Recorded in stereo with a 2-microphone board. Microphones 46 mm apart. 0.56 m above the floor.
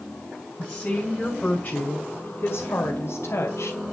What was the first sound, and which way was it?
A woman speaking, 15° left (ahead or behind).